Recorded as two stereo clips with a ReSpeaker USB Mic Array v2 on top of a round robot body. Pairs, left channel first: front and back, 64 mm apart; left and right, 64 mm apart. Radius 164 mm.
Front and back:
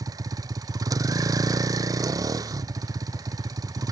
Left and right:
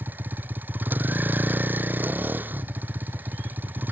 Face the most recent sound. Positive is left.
turn(degrees=-150)